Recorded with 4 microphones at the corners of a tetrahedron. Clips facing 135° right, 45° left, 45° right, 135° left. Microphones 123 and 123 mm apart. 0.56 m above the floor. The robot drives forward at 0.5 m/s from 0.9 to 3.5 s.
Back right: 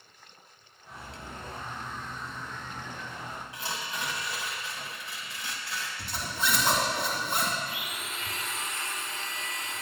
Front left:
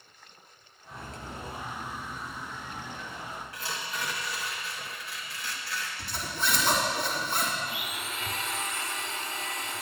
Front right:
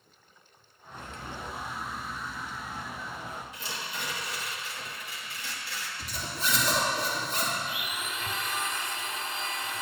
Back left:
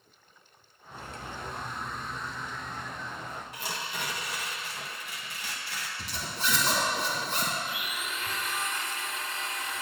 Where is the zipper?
155° left, 2.5 m.